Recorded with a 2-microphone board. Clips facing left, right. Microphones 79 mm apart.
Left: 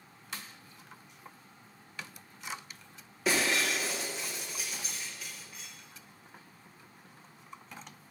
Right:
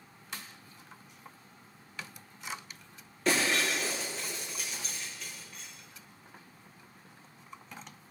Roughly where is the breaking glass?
Centre.